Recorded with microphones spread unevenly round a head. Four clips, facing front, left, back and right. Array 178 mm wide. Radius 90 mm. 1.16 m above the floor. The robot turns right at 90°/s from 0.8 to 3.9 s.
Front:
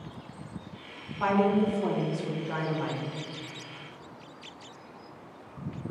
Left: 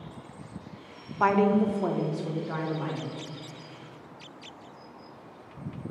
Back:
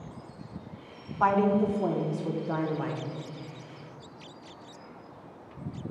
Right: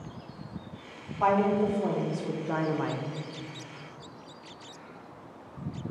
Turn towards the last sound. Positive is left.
turn(degrees=-30)